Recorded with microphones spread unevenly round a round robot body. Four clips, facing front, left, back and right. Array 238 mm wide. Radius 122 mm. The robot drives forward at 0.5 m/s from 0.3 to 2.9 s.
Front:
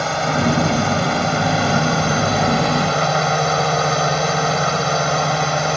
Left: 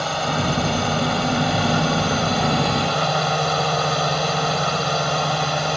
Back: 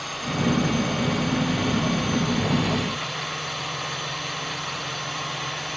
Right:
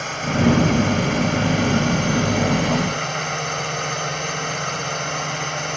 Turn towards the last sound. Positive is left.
turn(degrees=20)